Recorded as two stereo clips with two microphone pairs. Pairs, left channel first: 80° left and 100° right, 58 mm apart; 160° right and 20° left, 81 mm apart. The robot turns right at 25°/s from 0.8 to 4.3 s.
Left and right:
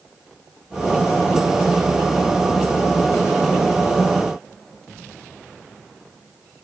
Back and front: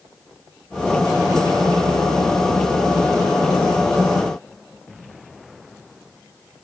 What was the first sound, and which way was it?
Only background noise.